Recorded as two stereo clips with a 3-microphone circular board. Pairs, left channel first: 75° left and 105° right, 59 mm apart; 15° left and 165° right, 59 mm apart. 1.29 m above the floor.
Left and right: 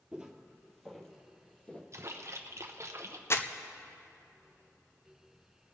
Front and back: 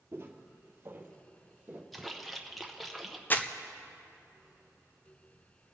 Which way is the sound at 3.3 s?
65° left.